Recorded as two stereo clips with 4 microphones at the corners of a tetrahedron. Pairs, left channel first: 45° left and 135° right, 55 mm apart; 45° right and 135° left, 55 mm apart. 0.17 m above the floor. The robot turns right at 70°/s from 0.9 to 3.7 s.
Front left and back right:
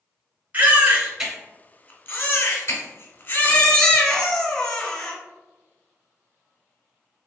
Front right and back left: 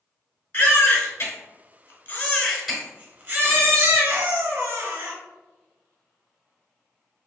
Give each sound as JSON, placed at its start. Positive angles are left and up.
{"t": 0.5, "sound": "a baby crying", "azimuth_deg": -80, "distance_m": 0.8}